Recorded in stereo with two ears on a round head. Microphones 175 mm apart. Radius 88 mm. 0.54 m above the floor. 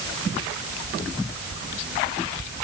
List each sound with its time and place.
Only background noise.